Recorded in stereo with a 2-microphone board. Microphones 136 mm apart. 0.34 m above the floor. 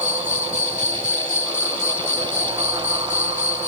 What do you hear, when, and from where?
0.0 s an insect: 60° right (ahead or behind)